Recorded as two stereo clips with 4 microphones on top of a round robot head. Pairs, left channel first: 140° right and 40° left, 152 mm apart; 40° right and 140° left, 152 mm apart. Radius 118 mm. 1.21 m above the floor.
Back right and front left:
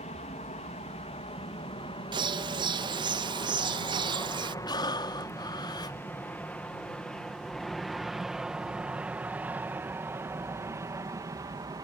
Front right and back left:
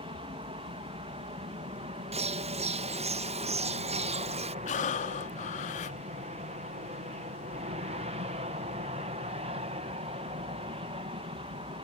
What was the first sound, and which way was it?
An aircraft, 175° right.